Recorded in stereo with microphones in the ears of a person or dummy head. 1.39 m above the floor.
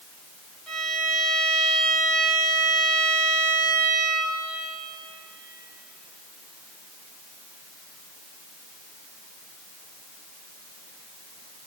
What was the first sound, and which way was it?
A violin, 10° left (ahead or behind).